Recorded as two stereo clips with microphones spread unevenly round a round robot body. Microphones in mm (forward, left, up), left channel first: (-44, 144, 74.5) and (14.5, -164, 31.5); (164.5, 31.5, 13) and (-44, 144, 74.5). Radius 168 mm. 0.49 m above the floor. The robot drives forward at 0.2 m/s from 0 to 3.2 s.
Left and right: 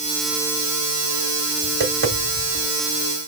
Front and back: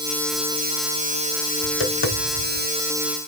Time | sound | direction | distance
1.6 | tapping | 25° right | 1.5 m